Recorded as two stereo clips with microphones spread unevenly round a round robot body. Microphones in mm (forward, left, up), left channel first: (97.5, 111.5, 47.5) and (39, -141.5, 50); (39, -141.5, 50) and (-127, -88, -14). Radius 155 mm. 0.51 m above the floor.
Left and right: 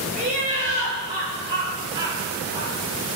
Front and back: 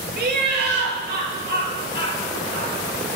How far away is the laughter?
About 8.5 m.